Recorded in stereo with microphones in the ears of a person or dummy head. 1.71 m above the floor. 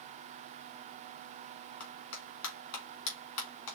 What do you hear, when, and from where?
1.8 s a clap: 70° left (ahead or behind), 3.5 m